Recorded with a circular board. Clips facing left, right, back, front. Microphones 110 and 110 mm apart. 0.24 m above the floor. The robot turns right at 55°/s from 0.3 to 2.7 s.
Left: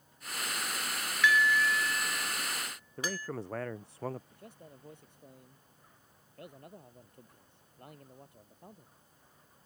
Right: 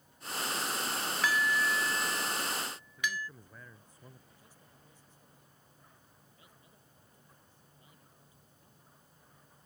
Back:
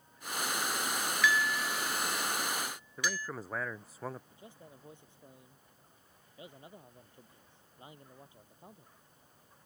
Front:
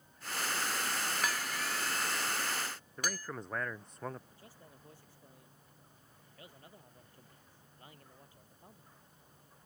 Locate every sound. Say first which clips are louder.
1.2 s dishes clattering: left 4 dB, back 6 dB; 40° right; by 3.3 s 40° left
3.0 s a man speaking: left 3 dB, back 3 dB; 95° left
4.3 s a man speaking: left 9 dB, back 4 dB; 110° left